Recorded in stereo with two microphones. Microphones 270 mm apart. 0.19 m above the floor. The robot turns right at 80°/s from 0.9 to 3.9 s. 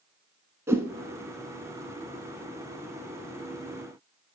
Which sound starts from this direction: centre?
A whoosh, at 0.7 s.